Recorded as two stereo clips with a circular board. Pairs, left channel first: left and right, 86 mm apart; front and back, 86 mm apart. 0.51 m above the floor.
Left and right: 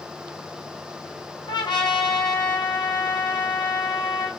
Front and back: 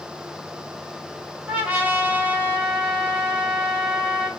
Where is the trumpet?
110° left, 2.5 m.